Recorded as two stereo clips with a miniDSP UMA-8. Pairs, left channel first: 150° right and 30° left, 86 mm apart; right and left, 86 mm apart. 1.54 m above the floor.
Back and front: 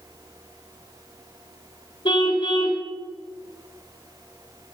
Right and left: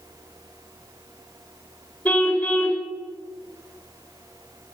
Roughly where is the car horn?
Behind.